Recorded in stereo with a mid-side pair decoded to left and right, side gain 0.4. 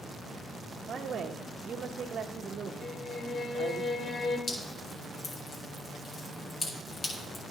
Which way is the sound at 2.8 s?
55° left.